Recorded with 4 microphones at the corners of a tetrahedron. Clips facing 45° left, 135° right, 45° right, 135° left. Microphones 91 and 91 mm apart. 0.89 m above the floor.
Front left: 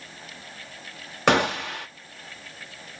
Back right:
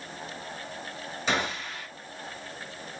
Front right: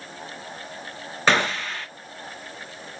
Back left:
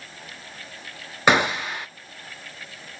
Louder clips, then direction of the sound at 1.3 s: Front left 9 dB, back left 2 dB; 60° left.